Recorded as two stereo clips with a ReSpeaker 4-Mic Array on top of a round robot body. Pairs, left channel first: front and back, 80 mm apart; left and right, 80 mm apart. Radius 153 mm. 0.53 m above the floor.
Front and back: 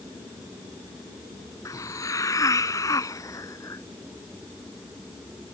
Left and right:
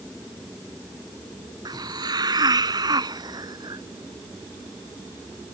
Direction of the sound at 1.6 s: 50° right.